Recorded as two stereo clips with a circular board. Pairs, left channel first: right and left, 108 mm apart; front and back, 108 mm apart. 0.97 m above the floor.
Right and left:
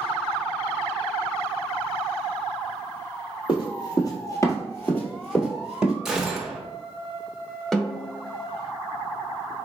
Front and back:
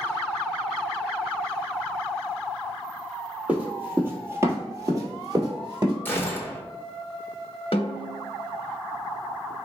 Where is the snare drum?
5° right, 0.8 m.